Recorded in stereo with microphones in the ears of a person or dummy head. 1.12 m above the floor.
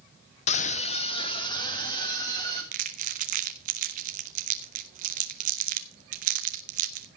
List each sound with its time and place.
0.5 s a scream: 35° left (ahead or behind), 0.7 m; by 2.6 s 20° left (ahead or behind), 3.5 m
2.7 s crumpling: 40° right (ahead or behind), 0.9 m